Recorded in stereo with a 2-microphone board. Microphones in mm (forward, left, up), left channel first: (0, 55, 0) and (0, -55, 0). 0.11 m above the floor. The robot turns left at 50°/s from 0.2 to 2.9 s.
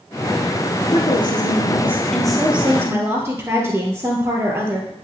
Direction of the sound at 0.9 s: 70° left.